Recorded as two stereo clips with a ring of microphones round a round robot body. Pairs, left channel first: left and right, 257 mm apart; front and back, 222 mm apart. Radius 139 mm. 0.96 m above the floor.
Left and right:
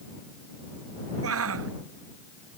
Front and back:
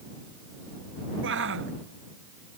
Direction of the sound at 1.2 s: 130° right.